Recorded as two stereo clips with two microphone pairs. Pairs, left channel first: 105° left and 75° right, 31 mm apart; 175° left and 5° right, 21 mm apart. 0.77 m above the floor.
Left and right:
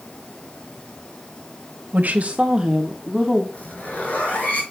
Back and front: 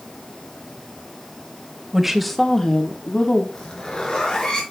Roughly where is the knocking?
I don't hear knocking.